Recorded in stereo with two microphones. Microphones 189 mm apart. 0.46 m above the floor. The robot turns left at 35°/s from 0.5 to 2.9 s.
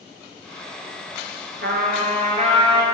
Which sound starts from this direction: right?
A trumpet, at 1.6 s.